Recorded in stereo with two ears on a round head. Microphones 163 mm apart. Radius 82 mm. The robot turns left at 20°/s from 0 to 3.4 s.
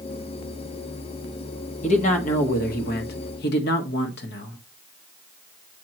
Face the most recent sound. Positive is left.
turn(degrees=105)